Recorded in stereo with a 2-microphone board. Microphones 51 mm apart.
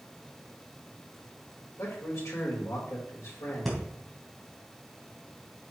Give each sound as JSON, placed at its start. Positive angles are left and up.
{"t": 1.8, "sound": "a man speaking", "side_deg": 80, "distance_m": 4.5}
{"t": 3.6, "sound": "breathing", "side_deg": 5, "distance_m": 3.5}